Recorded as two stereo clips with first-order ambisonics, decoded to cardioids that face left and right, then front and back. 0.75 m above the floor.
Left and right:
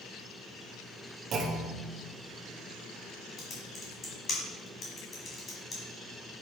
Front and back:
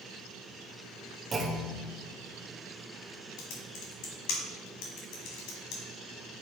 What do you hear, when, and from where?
1.3 s a clunk: 110° right, 0.8 m
3.4 s typing on a keyboard: 20° left, 1.6 m